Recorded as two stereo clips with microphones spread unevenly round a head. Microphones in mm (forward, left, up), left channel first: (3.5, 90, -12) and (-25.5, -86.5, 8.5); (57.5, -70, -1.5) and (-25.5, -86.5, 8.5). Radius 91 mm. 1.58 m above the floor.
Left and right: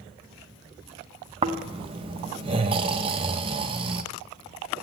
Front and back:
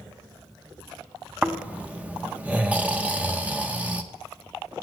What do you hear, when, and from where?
1.4 s snoring: 115° right, 0.8 m